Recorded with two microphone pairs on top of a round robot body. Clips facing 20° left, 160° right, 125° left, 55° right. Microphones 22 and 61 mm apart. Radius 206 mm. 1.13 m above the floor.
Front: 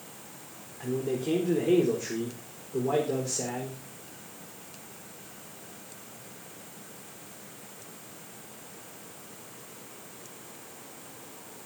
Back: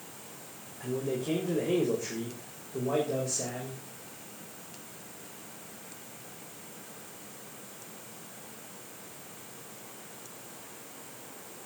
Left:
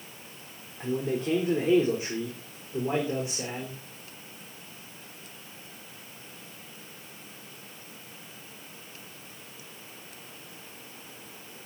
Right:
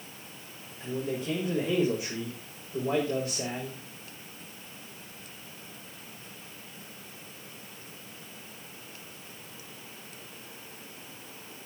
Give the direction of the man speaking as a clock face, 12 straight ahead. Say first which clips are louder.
Front 2 dB, left 4 dB; 9 o'clock.